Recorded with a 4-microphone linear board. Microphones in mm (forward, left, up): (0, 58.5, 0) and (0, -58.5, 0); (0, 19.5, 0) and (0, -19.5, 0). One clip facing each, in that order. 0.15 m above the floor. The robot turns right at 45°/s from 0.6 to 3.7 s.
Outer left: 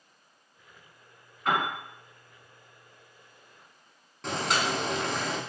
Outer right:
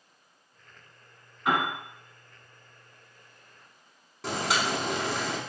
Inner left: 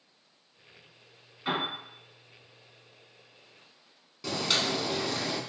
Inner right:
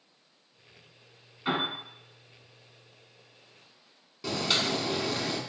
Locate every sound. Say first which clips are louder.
1.4 s a piano: outer right 1 dB, inner right 1 dB; 10° right (ahead or behind), 1.6 m; by 1.7 s 5° right (ahead or behind), 1.6 m
4.2 s boiling: even, inner right 1 dB; 5° right (ahead or behind), 0.6 m